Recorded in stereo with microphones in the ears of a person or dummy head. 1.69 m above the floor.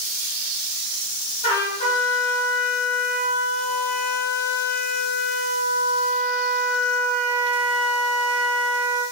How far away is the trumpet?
About 5 m.